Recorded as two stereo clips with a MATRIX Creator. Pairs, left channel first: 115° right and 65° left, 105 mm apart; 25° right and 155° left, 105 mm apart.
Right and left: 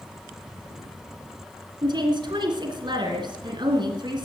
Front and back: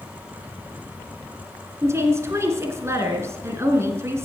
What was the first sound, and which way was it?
A woman speaking, 100° left.